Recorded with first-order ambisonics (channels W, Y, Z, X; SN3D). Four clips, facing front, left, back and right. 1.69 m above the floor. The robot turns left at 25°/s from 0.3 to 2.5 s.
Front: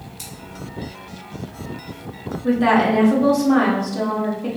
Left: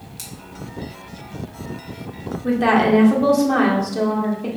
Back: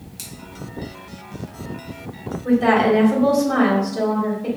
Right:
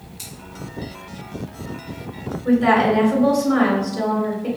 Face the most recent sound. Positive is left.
turn(degrees=70)